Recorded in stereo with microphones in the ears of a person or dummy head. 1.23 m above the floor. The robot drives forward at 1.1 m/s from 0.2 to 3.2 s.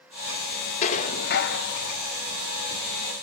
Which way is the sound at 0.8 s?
45° left (ahead or behind).